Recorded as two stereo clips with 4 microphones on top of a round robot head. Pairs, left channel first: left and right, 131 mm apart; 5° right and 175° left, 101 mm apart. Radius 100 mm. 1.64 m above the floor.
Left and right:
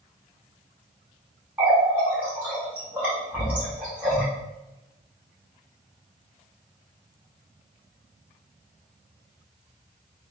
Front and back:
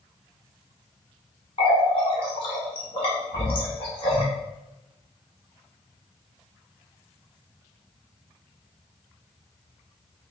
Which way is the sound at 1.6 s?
10° right.